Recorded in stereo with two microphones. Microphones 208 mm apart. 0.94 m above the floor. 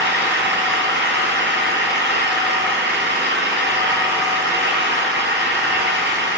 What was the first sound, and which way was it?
An engine running, 55° right (ahead or behind).